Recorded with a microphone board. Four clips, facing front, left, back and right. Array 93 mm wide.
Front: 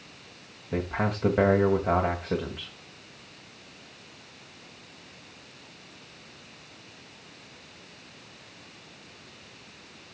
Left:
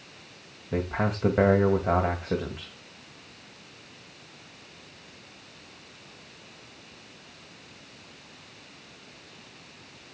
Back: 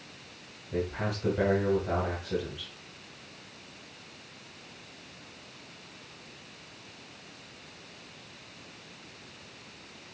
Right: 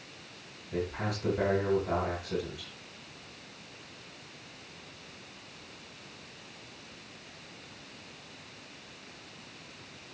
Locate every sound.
0.7 s a man speaking: 50° left, 2.5 m